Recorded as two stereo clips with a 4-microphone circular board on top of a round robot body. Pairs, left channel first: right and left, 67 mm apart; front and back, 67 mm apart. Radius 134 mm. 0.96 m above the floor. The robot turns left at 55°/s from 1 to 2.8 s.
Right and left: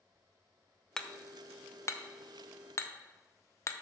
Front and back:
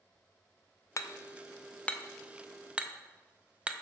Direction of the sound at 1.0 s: 15° right.